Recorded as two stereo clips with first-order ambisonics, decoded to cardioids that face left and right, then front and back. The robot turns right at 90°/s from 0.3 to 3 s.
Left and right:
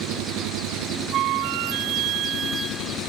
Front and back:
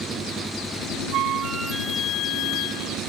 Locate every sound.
0.0 s an engine running: 115° right; by 3.1 s 130° left
1.1 s a flute: 140° right; by 3.0 s 25° left